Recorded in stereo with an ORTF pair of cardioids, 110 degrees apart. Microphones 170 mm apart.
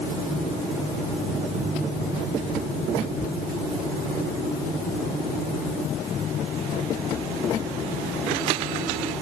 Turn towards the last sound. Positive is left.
No sound to turn to.